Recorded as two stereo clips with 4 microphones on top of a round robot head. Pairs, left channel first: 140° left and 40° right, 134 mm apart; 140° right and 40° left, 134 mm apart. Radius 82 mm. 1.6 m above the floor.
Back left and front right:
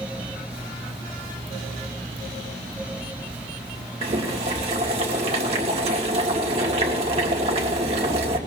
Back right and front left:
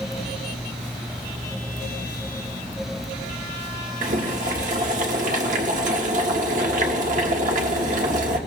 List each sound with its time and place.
4.0 s boiling: 5° left, 1.6 m